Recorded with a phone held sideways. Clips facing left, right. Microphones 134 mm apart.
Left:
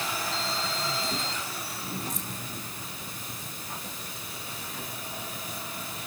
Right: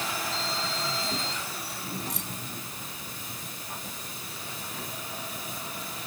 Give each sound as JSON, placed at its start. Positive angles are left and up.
{"t": 2.1, "sound": "keys jangling", "side_deg": -75}